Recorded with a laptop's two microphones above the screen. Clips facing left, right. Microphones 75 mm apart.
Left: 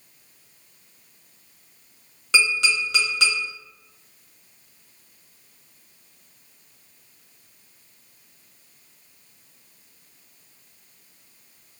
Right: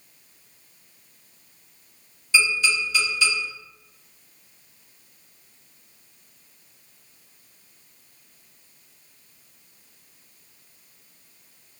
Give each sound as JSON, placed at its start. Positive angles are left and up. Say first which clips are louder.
{"t": 2.3, "sound": "tapping", "louder": "even", "side_deg": 85, "distance_m": 1.3}